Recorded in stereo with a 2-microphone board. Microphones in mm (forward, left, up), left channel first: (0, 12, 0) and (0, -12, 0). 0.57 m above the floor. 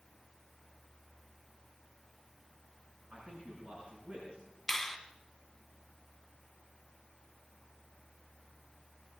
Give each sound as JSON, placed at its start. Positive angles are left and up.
{"t": 3.1, "sound": "a man speaking", "side_deg": -55, "distance_m": 6.0}
{"t": 4.7, "sound": "a finger snap", "side_deg": 10, "distance_m": 1.6}